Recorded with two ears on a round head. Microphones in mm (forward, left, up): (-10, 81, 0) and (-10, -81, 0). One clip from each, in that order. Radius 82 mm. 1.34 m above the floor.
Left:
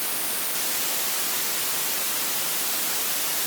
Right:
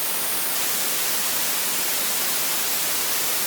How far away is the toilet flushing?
No toilet flushing in this recording.